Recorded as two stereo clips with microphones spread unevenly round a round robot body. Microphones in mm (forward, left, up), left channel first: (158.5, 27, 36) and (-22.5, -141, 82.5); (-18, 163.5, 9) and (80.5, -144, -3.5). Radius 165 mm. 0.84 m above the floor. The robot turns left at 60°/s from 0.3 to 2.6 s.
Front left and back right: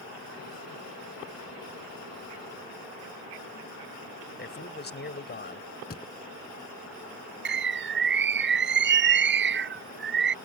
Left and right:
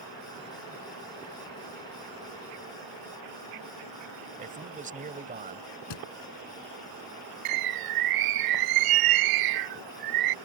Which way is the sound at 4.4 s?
5° right.